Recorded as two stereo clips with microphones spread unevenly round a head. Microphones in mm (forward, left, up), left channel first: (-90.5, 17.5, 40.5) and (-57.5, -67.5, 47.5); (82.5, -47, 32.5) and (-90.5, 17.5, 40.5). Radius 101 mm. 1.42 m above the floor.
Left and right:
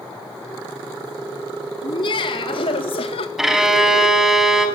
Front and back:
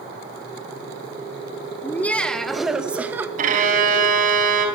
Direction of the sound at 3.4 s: 155° right.